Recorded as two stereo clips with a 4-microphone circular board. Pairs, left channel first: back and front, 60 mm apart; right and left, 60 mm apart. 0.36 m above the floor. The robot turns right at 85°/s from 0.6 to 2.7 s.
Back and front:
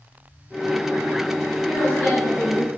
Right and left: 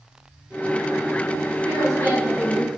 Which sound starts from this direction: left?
A woman speaking, at 1.6 s.